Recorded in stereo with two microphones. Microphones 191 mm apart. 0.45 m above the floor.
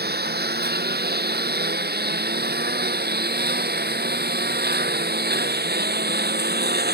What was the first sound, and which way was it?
A lawn mower, 55° right (ahead or behind).